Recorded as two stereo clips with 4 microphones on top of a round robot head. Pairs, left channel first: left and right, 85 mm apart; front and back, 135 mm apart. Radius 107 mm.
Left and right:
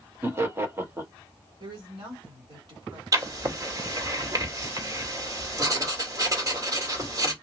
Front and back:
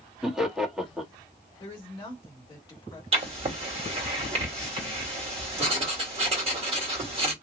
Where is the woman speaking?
65° right, 2.0 m.